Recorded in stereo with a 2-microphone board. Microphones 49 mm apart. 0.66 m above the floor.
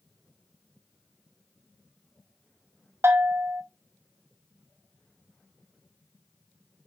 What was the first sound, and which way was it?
A bell, 60° right (ahead or behind).